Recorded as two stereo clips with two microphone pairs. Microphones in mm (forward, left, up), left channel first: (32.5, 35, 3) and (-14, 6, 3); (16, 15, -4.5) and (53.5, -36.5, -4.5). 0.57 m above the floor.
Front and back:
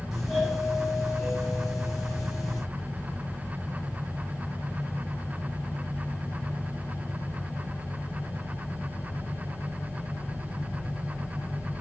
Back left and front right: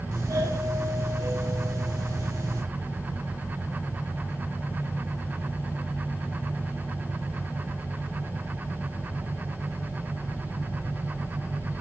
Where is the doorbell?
55° right, 4.5 m.